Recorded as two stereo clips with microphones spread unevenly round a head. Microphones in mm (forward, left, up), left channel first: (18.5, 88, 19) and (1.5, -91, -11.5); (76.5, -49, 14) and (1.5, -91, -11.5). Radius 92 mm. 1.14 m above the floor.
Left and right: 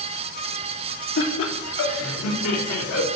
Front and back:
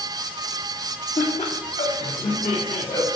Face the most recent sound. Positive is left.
turn(degrees=90)